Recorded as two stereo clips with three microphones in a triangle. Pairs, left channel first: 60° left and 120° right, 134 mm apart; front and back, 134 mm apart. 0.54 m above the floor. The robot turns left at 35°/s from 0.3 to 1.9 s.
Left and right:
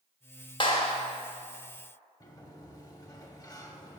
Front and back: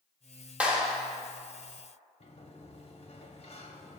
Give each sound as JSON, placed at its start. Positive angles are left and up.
{"t": 0.6, "sound": "a clap", "azimuth_deg": 100, "distance_m": 1.1}
{"t": 2.2, "sound": "a sliding door", "azimuth_deg": 5, "distance_m": 0.7}